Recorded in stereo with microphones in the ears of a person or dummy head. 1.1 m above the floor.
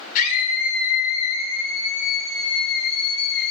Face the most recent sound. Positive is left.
turn(degrees=60)  # may be behind; listen again after turning